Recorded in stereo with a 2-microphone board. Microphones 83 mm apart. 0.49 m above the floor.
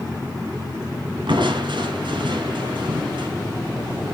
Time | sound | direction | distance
1.3 | crushing | 80° right | 2 m